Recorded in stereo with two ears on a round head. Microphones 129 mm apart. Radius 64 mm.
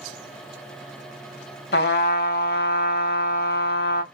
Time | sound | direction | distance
1.7 | a trumpet | 80° left | 1.0 m